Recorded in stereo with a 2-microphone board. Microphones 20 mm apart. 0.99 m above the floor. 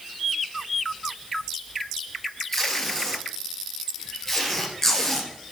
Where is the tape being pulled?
15° left (ahead or behind), 3 m.